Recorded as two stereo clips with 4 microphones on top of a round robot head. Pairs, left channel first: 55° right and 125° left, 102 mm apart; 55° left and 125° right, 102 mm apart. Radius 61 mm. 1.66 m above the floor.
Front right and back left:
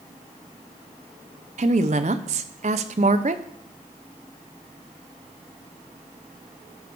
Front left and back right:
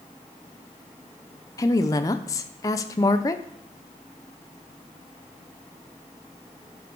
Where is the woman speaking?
110° left, 0.6 m.